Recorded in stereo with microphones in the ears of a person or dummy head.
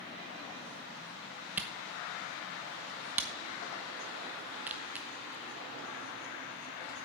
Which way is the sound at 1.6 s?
10° right (ahead or behind).